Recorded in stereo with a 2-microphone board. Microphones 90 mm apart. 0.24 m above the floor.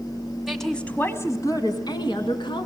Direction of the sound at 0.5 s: Centre (ahead or behind).